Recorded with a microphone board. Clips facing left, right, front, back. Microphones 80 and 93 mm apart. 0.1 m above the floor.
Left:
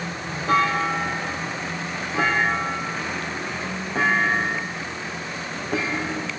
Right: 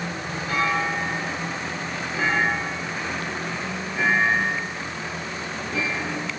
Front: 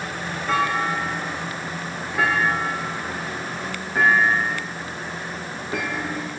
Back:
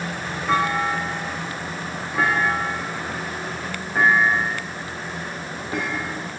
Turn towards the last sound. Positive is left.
turn(degrees=100)